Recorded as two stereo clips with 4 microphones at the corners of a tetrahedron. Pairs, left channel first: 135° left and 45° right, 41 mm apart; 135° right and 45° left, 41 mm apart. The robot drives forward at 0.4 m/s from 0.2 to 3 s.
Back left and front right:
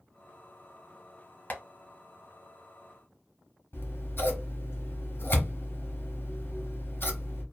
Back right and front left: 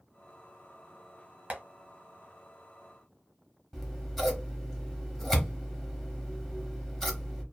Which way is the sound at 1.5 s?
90° left.